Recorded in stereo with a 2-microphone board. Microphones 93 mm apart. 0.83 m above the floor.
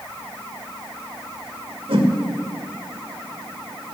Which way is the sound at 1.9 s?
80° right.